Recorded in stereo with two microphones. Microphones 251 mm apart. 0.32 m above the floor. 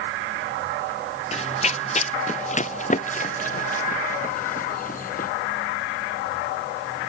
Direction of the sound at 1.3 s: 25° left (ahead or behind).